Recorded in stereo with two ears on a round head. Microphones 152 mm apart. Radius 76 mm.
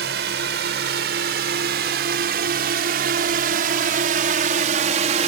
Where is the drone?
75° right (ahead or behind); by 5.3 s 45° right (ahead or behind).